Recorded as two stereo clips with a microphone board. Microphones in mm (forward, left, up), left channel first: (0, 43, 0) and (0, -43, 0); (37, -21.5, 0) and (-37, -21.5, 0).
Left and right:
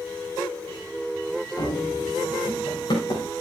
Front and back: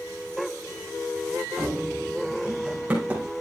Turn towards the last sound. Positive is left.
turn(degrees=115)